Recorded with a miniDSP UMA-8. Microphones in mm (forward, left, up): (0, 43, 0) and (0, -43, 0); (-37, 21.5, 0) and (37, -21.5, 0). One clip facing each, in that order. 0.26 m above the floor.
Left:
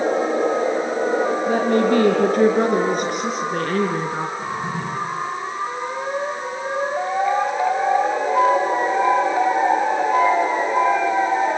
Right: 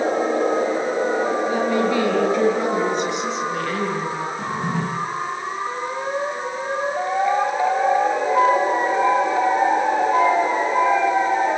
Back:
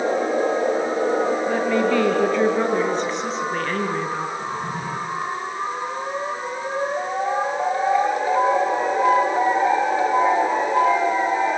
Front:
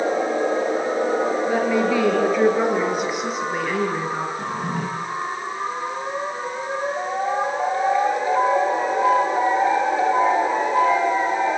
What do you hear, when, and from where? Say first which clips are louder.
1.5 s a woman speaking: left 2 dB, even; 55° left, 5 m; by 4.3 s 50° left, 3 m
4.4 s a drawer: right 1 dB, front 1 dB; 65° right, 8.5 m